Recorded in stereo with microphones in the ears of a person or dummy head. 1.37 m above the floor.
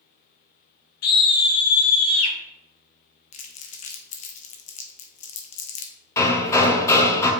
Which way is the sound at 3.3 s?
40° left (ahead or behind).